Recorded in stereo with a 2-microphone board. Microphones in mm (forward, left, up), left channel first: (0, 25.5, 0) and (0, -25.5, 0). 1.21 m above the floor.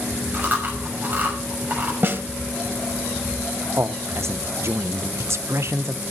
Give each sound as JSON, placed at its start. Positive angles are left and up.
{"t": 0.3, "sound": "chewing", "side_deg": -35, "distance_m": 6.0}
{"t": 2.0, "sound": "a snare drum", "side_deg": -45, "distance_m": 1.4}
{"t": 3.8, "sound": "a man speaking", "side_deg": -55, "distance_m": 0.7}